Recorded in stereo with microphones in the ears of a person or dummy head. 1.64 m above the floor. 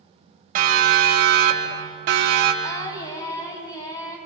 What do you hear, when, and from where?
0.6 s a siren: 55° right (ahead or behind), 4.5 m; by 2.5 s 75° right (ahead or behind), 4.5 m
2.6 s singing: 25° left (ahead or behind), 4.5 m